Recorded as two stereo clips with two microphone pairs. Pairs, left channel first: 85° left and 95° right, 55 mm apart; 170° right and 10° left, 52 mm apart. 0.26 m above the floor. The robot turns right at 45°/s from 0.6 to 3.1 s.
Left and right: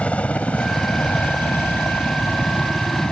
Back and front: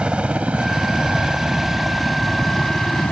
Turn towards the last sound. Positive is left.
turn(degrees=150)